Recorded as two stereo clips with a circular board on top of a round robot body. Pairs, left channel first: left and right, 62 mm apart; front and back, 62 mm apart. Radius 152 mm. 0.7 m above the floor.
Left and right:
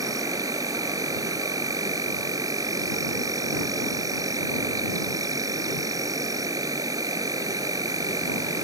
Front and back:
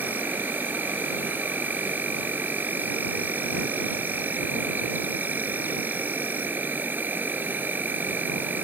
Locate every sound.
0.0 s an insect: 115° right